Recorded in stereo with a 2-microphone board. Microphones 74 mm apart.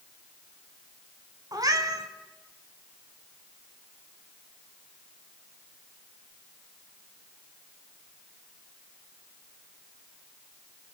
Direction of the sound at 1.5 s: 60° right (ahead or behind).